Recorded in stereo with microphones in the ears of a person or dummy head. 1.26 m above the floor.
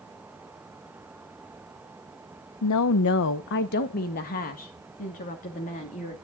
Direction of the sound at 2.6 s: 85° left.